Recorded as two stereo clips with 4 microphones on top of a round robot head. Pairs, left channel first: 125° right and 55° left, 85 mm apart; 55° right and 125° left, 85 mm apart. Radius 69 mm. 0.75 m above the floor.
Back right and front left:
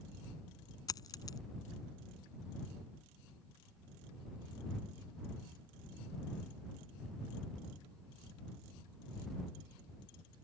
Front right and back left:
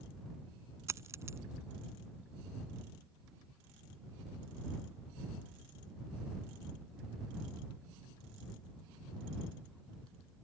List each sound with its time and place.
0.9 s a dropped coin: 175° right